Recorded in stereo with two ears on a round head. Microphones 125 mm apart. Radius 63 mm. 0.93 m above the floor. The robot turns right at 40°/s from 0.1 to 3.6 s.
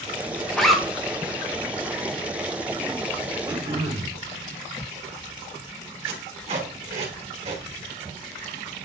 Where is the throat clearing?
30° right (ahead or behind), 2 m; by 4.2 s 35° right (ahead or behind), 2 m.